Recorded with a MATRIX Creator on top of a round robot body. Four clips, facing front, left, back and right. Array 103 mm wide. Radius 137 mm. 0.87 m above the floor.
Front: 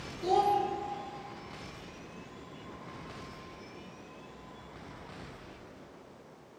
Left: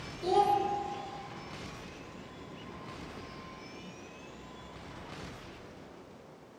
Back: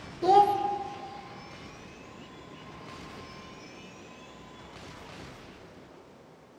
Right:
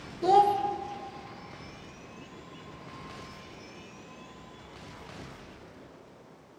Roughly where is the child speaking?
Behind right.